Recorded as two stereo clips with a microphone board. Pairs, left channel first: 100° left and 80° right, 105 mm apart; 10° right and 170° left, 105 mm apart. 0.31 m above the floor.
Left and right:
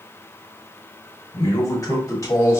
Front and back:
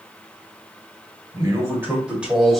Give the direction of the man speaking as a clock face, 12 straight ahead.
8 o'clock.